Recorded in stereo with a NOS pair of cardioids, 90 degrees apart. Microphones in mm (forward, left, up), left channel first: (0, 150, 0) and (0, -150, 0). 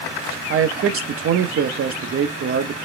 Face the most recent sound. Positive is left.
turn(degrees=-50)